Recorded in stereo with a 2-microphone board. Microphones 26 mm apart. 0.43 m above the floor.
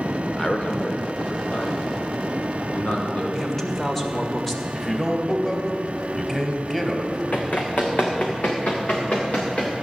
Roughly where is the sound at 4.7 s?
Centre.